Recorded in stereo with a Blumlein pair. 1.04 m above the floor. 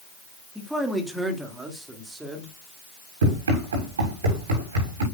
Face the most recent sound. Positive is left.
turn(degrees=-65)